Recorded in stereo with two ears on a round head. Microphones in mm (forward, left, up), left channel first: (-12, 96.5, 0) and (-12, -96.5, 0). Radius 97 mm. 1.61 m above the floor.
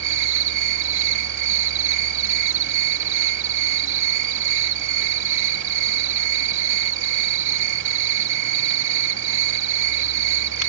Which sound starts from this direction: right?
An insect, at 0.0 s.